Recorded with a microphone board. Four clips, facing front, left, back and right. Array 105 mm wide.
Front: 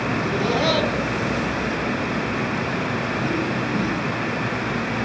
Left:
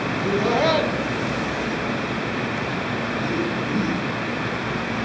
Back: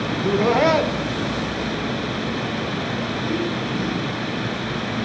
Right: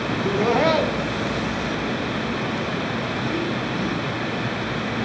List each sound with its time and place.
0.1 s laughter: 150° right, 1.8 m; by 4.0 s 60° left, 3 m